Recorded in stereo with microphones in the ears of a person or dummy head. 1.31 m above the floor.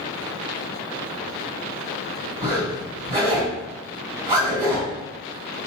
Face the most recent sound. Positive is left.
turn(degrees=-15)  # may be behind; listen again after turning